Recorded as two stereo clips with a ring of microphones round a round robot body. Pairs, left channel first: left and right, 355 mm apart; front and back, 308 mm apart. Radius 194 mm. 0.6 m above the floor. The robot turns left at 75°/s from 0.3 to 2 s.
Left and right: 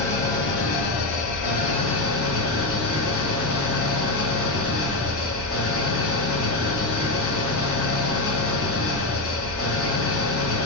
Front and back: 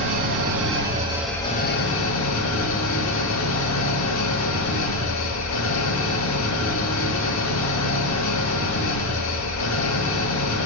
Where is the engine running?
165° left, 1.8 m; by 10.7 s 35° left, 1.8 m.